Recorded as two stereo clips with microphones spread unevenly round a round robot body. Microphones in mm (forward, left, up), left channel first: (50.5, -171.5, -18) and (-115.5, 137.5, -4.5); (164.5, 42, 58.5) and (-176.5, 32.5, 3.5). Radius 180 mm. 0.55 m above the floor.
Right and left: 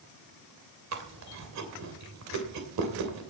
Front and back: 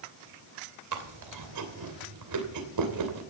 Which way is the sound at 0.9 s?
160° left.